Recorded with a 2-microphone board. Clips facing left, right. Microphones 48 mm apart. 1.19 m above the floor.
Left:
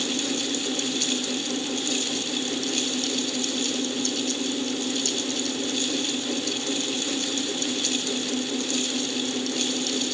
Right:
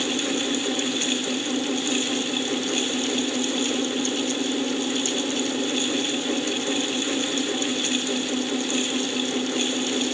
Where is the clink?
No clink in this recording.